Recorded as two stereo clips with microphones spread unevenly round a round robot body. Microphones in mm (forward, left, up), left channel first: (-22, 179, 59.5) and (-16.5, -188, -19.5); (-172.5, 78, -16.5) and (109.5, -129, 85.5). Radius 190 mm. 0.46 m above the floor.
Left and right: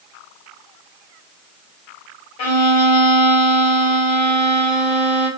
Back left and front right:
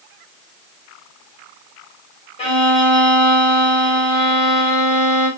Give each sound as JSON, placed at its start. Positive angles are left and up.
{"t": 2.4, "sound": "a violin", "azimuth_deg": 85, "distance_m": 1.9}